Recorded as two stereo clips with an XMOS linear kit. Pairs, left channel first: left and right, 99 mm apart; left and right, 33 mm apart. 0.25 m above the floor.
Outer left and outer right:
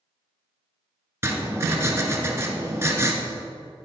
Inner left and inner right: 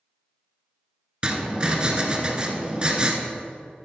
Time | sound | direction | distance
1.2 | writing | 30° right (ahead or behind) | 1.1 m